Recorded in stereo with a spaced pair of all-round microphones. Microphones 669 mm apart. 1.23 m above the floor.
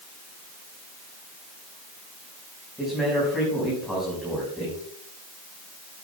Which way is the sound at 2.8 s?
Centre (ahead or behind).